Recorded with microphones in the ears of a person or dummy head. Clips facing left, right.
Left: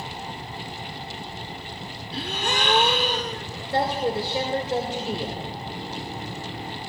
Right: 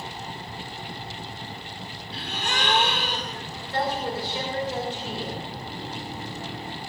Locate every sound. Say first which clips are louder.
2.1 s a gasp: left 4 dB; 75° left (ahead or behind), 1.3 m
3.7 s a woman speaking: left 4 dB; 35° left (ahead or behind), 2 m